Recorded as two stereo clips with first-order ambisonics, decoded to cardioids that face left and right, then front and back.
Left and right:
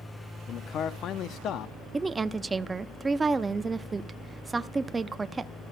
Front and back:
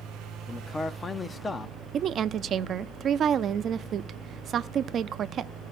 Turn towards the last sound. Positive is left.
turn(degrees=-155)